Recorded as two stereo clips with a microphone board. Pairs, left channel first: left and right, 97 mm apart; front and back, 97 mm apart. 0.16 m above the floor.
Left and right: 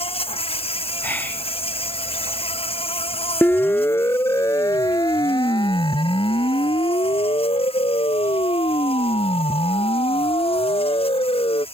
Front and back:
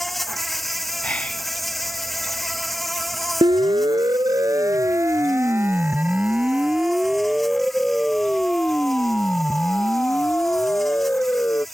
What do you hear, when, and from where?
0.0 s an insect: 90° left
1.0 s whispering: 55° left
3.4 s a siren: 160° left; by 11.6 s 70° left